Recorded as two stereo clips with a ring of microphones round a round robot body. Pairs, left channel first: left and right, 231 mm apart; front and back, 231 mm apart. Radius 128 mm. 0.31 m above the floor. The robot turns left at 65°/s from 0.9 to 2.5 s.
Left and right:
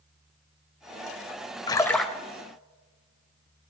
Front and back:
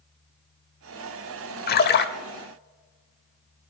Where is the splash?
25° left, 0.7 m; by 2.1 s 5° right, 0.7 m.